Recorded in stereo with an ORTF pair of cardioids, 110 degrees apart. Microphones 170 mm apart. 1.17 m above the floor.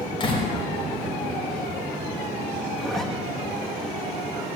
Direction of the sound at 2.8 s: Straight ahead.